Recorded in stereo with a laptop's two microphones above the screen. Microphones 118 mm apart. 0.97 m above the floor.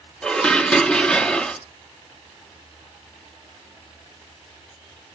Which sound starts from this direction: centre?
Dishes clattering, at 0.2 s.